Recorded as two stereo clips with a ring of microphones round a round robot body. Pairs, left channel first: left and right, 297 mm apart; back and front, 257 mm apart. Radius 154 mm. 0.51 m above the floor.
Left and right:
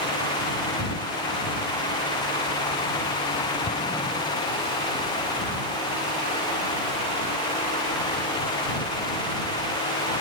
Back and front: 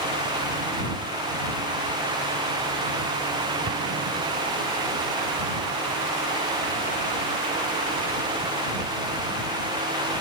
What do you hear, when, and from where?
3.7 s an explosion: 25° left